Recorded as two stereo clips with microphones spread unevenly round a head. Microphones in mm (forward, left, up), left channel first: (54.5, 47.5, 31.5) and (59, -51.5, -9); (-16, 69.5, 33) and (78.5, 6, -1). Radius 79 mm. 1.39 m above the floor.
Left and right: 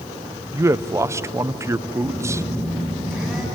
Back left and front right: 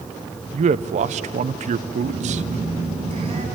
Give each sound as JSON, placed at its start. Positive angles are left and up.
{"t": 0.5, "sound": "a man speaking", "azimuth_deg": -30, "distance_m": 0.7}
{"t": 2.0, "sound": "a phone buzzing", "azimuth_deg": 5, "distance_m": 7.5}